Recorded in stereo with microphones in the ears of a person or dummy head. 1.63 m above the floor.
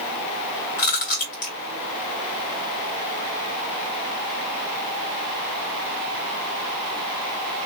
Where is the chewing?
50° left (ahead or behind), 2.5 m.